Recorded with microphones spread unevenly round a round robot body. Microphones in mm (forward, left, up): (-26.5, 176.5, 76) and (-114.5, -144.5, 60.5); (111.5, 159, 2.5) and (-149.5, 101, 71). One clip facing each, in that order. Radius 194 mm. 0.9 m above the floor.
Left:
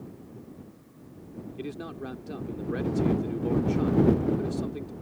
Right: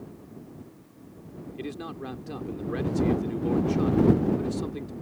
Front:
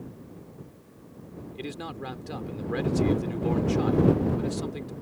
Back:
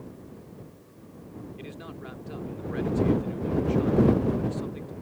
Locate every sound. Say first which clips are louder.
1.6 s a man speaking: right 1 dB, front 4 dB; 20° right